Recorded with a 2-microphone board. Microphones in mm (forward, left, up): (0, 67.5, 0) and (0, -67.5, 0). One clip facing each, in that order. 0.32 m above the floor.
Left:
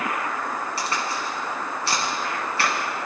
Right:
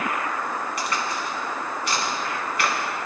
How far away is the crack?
About 3.5 m.